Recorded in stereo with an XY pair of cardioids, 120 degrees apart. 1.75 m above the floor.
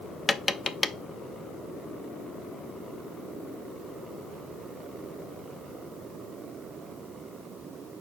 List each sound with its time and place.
0.3 s tapping: 20° left, 0.7 m